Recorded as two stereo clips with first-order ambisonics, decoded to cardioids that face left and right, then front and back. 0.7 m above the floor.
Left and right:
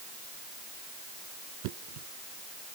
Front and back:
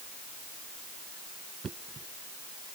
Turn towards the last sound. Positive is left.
turn(degrees=-110)